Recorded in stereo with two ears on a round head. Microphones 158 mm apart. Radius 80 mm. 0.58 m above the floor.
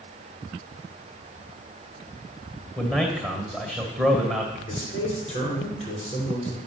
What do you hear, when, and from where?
2.8 s a man speaking: 5° left (ahead or behind), 2 m
4.7 s a man speaking: 40° left (ahead or behind), 8 m